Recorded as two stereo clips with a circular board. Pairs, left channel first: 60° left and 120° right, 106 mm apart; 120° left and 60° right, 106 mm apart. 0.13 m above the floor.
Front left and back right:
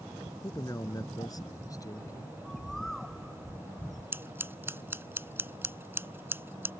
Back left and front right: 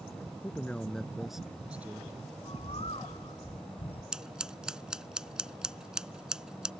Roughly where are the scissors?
Behind right.